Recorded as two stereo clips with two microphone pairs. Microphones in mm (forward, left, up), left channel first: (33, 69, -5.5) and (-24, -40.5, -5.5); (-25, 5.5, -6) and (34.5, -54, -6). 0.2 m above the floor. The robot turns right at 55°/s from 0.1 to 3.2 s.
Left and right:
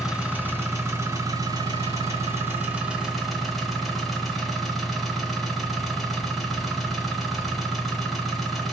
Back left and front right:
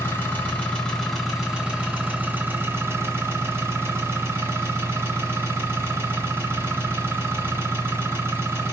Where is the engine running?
160° left, 1.3 m; by 8.7 s 25° right, 1.3 m.